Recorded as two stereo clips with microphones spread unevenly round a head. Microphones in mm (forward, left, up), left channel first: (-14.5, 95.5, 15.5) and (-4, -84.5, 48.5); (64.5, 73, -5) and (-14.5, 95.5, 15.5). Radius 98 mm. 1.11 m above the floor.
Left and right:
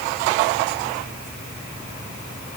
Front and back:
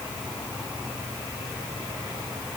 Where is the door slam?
I don't hear a door slam.